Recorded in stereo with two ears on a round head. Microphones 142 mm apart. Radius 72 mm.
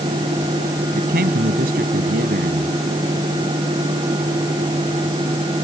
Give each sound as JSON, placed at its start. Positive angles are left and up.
{"t": 0.9, "sound": "a man speaking", "side_deg": -60}